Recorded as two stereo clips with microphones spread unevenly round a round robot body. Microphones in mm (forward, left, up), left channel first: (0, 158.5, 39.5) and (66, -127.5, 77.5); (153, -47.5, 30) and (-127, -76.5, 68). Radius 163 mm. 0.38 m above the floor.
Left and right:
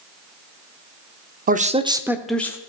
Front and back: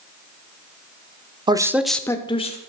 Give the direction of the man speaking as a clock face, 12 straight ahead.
3 o'clock.